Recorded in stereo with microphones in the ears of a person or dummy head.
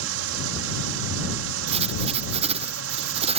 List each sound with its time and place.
0.0 s running water: 85° right
1.7 s writing: 35° right (ahead or behind)